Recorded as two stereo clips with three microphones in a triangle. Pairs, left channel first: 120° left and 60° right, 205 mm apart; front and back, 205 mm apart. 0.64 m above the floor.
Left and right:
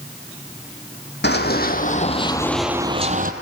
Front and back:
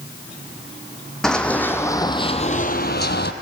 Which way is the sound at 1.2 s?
85° left.